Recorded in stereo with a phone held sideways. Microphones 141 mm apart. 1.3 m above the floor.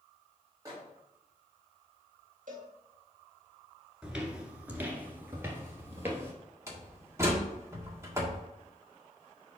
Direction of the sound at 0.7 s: 25° right (ahead or behind).